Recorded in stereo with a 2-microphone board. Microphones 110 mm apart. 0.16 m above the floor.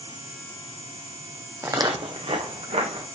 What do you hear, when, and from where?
1.6 s footsteps: 25° right (ahead or behind), 0.5 m; by 3.1 s 70° right (ahead or behind), 1.3 m